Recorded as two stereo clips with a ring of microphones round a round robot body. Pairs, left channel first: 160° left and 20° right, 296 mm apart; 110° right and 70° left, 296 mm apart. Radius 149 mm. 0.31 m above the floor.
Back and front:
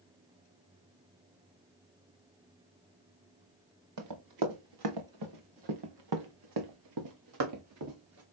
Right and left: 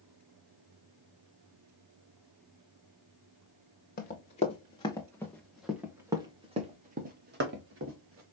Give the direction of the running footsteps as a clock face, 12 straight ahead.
2 o'clock.